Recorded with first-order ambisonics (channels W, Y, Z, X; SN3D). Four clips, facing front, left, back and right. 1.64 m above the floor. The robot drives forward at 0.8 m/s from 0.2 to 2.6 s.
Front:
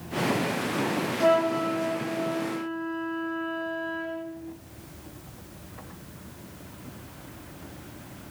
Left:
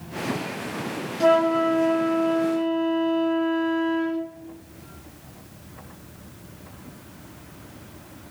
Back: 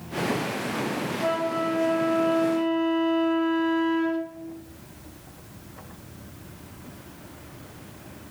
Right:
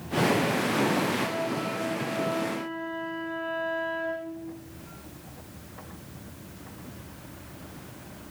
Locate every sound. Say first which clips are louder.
1.2 s a flute: left 11 dB, front 4 dB; 70° left, 0.6 m; by 4.3 s 150° left, 1.1 m